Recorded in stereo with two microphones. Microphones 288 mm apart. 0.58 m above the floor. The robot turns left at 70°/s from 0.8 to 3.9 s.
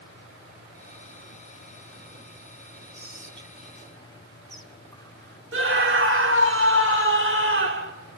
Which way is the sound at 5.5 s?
45° right (ahead or behind).